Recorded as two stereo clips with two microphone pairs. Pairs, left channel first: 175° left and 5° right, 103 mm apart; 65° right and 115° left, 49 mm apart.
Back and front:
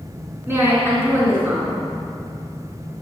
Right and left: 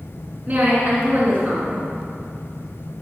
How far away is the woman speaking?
About 3 m.